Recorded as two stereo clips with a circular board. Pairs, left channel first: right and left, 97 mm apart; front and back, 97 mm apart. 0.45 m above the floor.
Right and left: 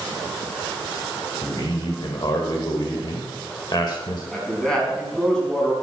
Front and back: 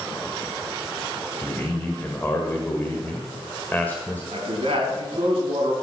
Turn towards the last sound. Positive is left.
turn(degrees=-170)